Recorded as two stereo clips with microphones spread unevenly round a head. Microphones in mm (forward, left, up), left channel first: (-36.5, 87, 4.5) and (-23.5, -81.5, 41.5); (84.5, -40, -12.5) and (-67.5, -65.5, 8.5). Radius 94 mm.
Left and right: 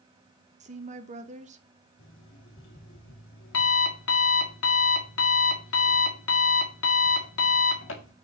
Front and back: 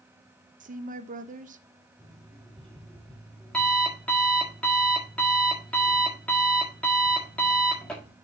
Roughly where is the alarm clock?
Left.